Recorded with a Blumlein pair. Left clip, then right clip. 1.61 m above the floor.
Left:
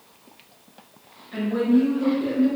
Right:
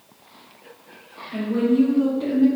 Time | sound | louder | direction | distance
1.3 | a woman speaking | right 1 dB | 15° right | 1.3 m